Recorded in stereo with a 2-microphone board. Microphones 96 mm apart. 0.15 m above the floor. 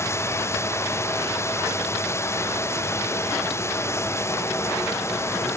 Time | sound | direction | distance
0.0 | running water | 30° left (ahead or behind) | ?